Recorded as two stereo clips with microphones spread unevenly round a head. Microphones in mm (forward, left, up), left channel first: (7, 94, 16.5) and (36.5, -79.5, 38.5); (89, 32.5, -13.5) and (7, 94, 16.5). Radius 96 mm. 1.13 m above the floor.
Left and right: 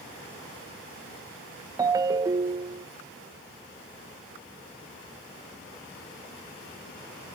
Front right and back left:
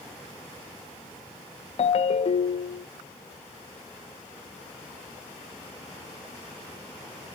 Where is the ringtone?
10° right, 0.5 m.